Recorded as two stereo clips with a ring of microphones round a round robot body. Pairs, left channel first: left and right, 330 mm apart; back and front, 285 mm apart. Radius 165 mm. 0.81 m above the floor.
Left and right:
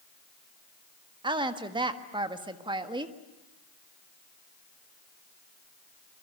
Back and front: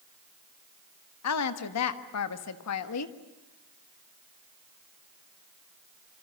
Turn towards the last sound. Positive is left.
turn(degrees=-165)